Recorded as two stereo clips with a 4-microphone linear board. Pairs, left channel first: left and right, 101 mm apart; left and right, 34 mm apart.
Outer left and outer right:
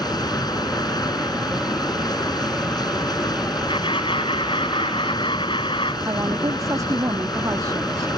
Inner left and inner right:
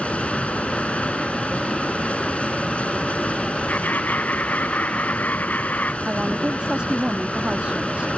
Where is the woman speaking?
35° right (ahead or behind).